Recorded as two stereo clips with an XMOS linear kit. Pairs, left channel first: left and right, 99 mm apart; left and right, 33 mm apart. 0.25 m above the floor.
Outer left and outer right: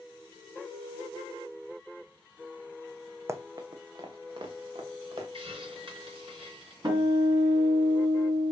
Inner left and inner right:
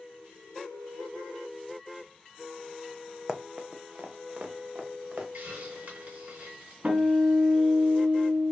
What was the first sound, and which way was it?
Running footsteps, 30° right (ahead or behind).